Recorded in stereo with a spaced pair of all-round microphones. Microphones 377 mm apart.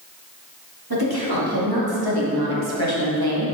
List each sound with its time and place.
0.9 s a woman speaking: 70° right (ahead or behind), 3.5 m; by 3.5 s 65° right (ahead or behind), 1.1 m